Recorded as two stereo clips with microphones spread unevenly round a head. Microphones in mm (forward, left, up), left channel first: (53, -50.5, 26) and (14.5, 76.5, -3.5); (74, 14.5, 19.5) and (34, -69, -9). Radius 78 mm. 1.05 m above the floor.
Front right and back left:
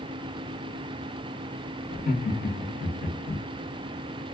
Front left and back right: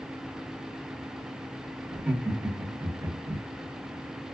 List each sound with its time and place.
1.9 s laughter: 45° right, 1.2 m; by 3.4 s 95° right, 1.0 m